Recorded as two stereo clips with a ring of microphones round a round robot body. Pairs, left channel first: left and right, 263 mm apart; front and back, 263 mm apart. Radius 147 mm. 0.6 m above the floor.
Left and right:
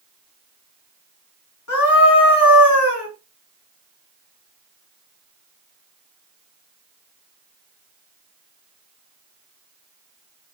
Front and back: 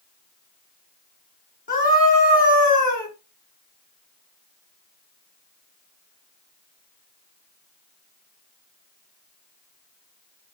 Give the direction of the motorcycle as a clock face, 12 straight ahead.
I don't hear a motorcycle.